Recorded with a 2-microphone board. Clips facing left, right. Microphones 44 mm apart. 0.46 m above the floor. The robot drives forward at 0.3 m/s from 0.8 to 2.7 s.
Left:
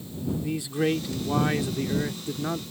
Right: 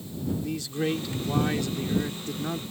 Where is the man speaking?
15° left (ahead or behind).